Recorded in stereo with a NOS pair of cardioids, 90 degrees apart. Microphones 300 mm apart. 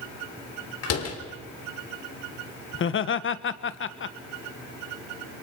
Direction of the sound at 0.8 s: 55° left.